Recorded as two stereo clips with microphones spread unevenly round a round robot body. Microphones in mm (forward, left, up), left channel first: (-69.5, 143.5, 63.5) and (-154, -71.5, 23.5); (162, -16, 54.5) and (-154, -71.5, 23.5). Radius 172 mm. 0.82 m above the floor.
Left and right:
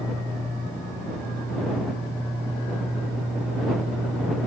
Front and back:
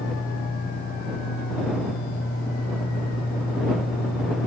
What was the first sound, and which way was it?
Only background noise.